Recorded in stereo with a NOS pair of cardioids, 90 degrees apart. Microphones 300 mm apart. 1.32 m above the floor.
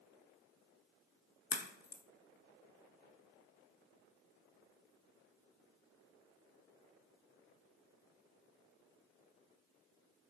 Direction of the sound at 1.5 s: 30° left.